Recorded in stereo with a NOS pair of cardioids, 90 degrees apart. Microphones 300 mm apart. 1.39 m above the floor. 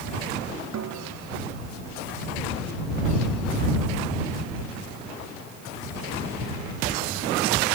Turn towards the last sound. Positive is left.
turn(degrees=-60)